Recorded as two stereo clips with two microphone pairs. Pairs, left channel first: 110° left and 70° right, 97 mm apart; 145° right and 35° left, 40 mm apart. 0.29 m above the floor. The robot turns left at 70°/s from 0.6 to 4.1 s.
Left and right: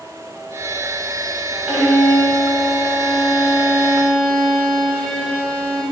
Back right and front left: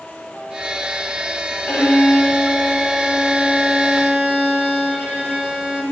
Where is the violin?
145° right, 1.4 m; by 5.8 s 45° left, 1.4 m.